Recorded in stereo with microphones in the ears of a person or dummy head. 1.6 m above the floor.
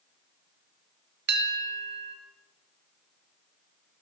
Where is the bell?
55° right (ahead or behind), 2.5 m.